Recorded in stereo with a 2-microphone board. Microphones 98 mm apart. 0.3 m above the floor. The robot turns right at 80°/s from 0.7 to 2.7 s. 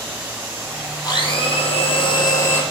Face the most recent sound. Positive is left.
turn(degrees=170)